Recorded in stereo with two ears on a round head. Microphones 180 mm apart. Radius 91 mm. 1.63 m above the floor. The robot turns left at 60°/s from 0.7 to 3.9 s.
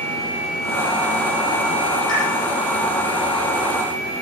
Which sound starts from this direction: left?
A pop, at 2.1 s.